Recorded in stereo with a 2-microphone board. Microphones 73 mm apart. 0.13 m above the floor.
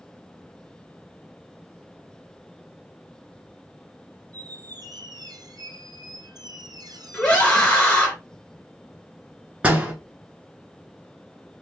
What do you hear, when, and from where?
4.3 s a squeak: 70° right (ahead or behind), 0.7 m
7.1 s a scream: 20° left (ahead or behind), 2.5 m
9.6 s a door slam: 15° right (ahead or behind), 1.3 m